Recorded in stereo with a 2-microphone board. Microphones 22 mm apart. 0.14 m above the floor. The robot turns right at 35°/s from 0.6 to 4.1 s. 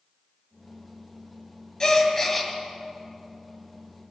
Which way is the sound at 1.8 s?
30° left (ahead or behind).